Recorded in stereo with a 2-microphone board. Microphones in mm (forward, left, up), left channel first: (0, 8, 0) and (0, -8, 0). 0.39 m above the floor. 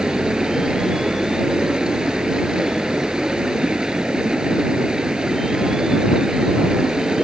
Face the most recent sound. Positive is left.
turn(degrees=-50)  # may be behind; listen again after turning